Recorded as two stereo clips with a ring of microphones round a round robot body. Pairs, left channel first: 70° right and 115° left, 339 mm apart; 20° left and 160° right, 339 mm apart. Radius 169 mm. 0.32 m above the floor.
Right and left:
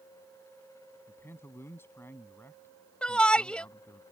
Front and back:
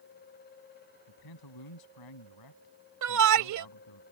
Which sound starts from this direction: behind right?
A shout, at 3.0 s.